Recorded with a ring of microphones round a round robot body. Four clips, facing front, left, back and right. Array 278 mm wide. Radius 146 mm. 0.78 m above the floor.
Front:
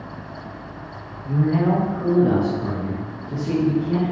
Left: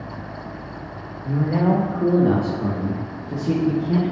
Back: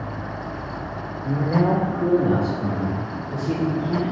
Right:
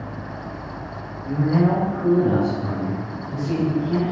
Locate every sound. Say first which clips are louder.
1.2 s a man speaking: right 1 dB, front 1 dB; 160° left, 1.3 m; by 4.1 s 70° left, 2.5 m